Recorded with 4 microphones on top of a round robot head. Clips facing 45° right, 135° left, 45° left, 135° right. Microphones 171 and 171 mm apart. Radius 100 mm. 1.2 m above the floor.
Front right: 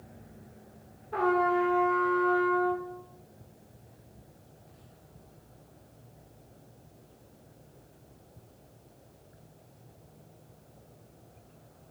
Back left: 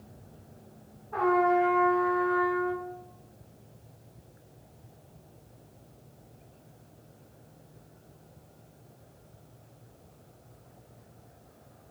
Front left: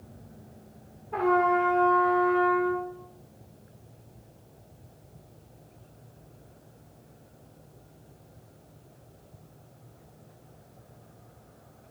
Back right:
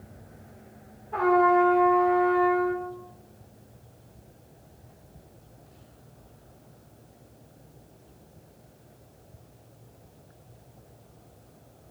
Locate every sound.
1.1 s a trumpet: 35° right, 0.8 m